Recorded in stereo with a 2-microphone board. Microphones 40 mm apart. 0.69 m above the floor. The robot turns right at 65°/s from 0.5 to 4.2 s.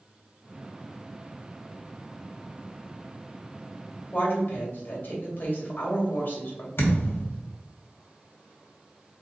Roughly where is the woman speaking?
Left.